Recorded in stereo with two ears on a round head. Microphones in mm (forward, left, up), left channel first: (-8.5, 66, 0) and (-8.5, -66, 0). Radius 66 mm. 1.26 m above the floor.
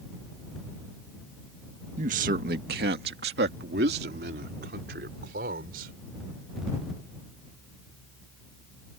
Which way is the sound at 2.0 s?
50° right (ahead or behind).